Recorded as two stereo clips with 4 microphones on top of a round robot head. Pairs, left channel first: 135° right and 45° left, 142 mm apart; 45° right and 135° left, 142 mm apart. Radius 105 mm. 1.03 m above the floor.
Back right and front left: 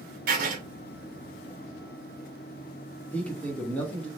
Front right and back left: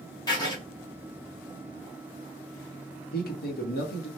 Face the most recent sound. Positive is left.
turn(degrees=-55)